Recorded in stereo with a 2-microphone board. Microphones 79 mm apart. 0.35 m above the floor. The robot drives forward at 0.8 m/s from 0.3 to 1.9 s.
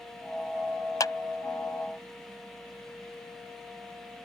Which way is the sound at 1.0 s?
55° left (ahead or behind).